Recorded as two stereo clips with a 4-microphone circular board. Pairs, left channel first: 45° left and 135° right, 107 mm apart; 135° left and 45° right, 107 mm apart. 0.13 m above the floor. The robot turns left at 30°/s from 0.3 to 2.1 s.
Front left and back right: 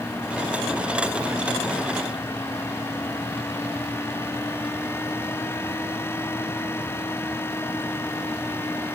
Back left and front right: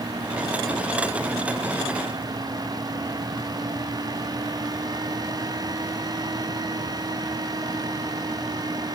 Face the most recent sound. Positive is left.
No sound to turn to.